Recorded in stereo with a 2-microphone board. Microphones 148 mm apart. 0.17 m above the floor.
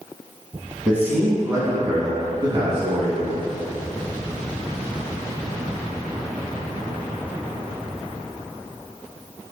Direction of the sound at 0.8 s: 5° right (ahead or behind).